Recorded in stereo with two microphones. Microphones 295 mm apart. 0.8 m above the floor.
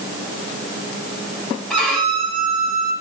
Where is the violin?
5° left (ahead or behind), 2.5 m.